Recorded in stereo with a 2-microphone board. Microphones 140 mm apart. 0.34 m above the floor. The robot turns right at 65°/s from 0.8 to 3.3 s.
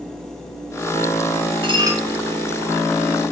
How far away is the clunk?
I don't hear a clunk.